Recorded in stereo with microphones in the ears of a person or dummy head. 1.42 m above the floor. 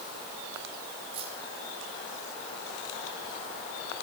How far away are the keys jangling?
About 8.5 m.